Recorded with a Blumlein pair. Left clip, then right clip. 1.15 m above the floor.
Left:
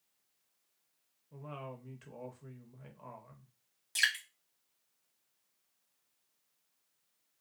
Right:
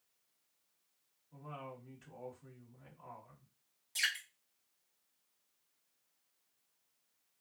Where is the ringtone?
I don't hear a ringtone.